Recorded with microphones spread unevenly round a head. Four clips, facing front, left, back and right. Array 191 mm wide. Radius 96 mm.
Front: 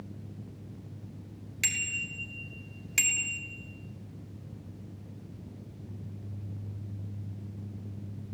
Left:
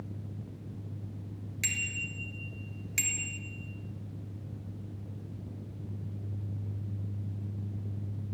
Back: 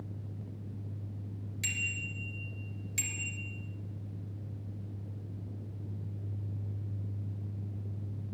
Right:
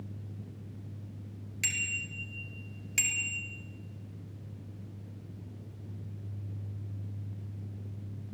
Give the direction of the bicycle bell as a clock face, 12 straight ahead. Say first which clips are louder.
Even, front 4 dB; 12 o'clock.